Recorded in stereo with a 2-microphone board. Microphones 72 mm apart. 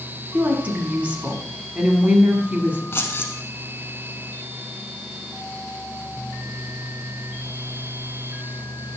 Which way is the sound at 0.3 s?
20° right (ahead or behind).